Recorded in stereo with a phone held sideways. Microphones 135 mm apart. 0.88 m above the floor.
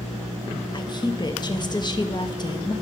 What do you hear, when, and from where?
0.7 s a woman speaking: 35° left (ahead or behind), 1.1 m